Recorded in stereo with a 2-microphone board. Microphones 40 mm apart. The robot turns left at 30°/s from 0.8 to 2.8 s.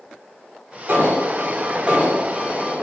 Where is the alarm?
110° right, 3 m; by 2.8 s 165° right, 3 m.